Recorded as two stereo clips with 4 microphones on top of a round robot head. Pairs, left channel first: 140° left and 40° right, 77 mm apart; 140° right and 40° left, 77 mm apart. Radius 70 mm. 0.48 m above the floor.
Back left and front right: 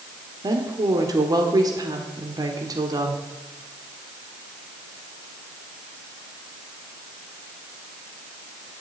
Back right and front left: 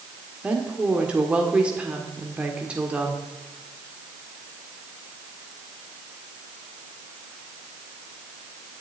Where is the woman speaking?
35° right, 1.6 m.